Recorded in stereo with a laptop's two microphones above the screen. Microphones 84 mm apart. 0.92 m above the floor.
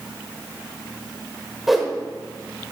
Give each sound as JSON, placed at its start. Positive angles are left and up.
{"t": 1.7, "sound": "a whoosh", "side_deg": -5, "distance_m": 1.2}